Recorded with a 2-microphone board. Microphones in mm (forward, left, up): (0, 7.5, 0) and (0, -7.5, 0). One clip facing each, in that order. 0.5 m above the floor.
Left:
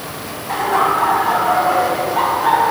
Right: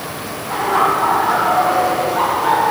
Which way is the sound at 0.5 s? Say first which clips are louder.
Even; 40° left (ahead or behind).